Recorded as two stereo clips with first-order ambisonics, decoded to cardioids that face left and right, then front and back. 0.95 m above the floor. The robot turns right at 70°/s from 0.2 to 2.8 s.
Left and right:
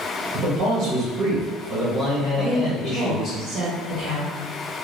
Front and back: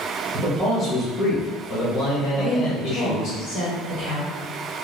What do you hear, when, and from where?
0.3 s a man speaking: 135° right, 1.4 m; by 3.4 s 35° left, 1.4 m
2.4 s a woman speaking: 60° right, 1.6 m; by 4.3 s 30° right, 1.6 m